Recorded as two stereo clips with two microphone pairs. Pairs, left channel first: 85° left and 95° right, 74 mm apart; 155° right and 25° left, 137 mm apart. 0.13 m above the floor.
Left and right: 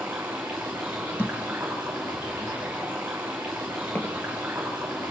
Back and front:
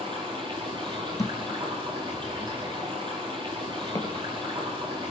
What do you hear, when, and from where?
0.0 s running water: 25° right, 5.5 m
1.2 s a thud: 140° left, 1.7 m